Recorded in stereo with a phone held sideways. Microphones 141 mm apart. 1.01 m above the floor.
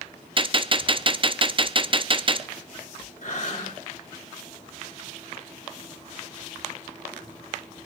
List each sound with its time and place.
0.4 s a gunshot: 35° right (ahead or behind), 0.5 m
3.2 s breathing: 60° left (ahead or behind), 2.5 m